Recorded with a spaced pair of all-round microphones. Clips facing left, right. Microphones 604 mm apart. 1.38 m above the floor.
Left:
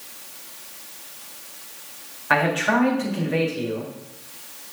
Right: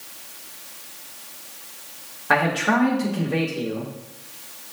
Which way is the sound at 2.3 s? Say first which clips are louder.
Even; 60° right (ahead or behind).